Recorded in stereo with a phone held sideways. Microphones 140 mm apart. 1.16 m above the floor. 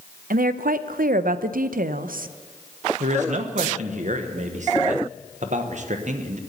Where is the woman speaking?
85° right, 0.5 m.